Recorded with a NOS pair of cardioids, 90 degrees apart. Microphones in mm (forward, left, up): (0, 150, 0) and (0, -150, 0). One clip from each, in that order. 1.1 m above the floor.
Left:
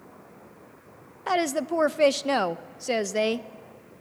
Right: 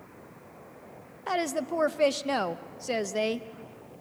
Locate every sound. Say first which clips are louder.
1.3 s a woman speaking: left 4 dB; 20° left, 0.6 m